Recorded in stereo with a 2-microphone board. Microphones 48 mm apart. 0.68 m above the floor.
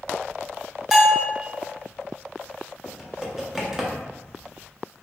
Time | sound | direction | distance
0.9 | a bell | 10° right (ahead or behind) | 0.5 m
2.8 | typing on a keyboard | 10° right (ahead or behind) | 0.5 m